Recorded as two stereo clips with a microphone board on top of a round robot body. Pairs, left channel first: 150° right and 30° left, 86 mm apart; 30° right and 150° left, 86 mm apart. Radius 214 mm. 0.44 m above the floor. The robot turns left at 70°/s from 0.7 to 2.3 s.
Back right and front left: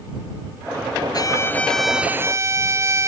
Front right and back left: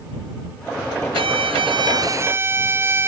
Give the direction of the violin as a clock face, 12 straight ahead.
6 o'clock.